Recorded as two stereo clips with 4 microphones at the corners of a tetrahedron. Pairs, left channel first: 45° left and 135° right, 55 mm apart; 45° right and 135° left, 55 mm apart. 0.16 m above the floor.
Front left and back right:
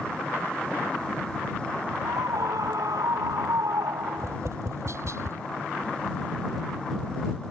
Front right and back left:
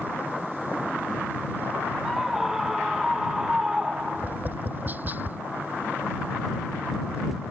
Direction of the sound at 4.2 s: 170° right.